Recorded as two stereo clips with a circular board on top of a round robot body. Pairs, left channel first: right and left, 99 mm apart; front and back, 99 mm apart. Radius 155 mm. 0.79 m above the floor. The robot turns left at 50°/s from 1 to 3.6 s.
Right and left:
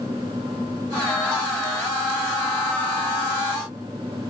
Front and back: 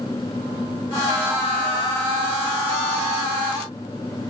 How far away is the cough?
I don't hear a cough.